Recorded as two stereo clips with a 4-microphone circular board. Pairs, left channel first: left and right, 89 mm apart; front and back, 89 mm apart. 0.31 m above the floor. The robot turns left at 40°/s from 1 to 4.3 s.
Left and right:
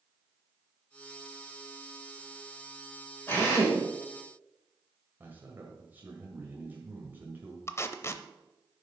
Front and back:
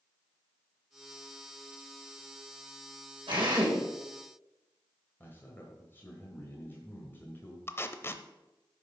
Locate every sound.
3.3 s a drill: 155° left, 5.5 m; by 3.8 s 135° left, 5.5 m
5.2 s a man speaking: 45° right, 1.6 m
7.7 s tape being pulled: 45° left, 0.6 m